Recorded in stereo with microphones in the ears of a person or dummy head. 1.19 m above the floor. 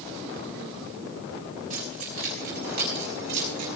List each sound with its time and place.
1.7 s keys jangling: 45° right (ahead or behind), 4.5 m; by 3.7 s 60° right (ahead or behind), 4.5 m